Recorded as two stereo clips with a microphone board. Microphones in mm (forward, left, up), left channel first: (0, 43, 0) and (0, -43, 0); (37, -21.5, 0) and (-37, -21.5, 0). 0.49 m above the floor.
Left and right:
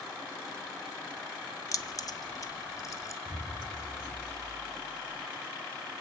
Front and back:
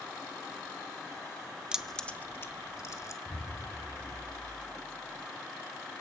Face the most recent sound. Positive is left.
turn(degrees=80)